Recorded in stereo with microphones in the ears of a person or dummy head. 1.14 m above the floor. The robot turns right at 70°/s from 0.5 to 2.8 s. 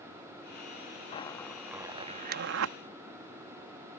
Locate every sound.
1.1 s a zipper: 30° left (ahead or behind); by 2.8 s 80° right